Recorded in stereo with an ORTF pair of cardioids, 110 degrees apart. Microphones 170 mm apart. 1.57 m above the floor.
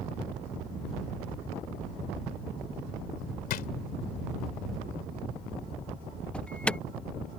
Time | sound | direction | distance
3.5 | a drawer | 65° left | ?
6.3 | an alarm | 5° left | ?